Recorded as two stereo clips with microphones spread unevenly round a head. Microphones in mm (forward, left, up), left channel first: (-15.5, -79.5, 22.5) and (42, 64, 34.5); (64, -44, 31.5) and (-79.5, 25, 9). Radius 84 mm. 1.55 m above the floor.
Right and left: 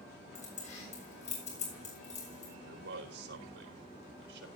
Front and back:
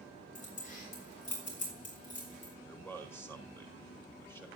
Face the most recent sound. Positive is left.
turn(degrees=50)